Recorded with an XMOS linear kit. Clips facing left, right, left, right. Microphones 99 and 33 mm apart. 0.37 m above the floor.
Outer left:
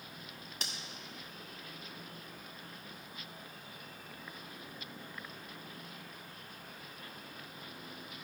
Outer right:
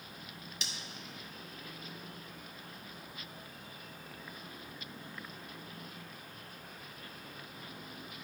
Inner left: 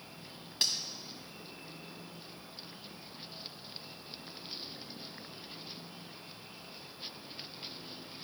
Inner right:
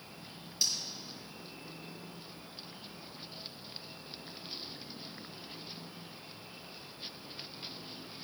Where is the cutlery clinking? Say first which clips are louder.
Outer left 1 dB, inner left 1 dB; 50° left (ahead or behind), 1.7 m.